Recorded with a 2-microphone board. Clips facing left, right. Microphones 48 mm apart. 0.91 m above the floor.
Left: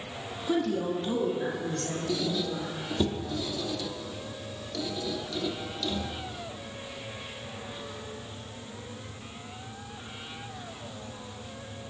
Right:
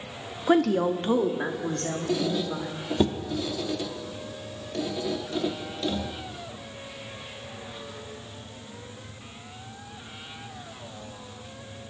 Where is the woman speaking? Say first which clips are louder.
Right 6 dB; 70° right (ahead or behind), 1.1 m; by 2.7 s 45° right (ahead or behind), 3 m.